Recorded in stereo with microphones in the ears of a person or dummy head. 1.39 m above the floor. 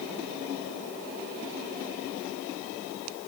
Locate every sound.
Only background noise.